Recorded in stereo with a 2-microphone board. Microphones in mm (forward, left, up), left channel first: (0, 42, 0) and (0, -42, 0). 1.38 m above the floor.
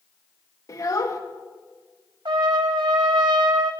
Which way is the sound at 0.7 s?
45° left (ahead or behind).